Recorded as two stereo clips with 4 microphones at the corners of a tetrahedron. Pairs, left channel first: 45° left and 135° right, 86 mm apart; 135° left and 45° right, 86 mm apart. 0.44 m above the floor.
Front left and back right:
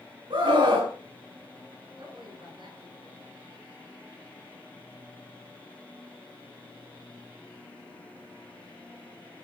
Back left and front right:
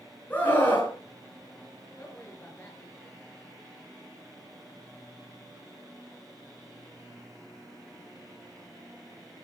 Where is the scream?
155° right, 5.5 m.